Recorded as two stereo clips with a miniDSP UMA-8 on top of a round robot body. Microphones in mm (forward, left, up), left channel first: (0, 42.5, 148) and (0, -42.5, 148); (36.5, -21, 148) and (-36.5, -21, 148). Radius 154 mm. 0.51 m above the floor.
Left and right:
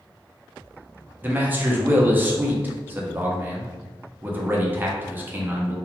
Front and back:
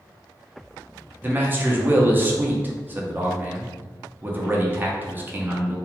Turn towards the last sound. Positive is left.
turn(degrees=-140)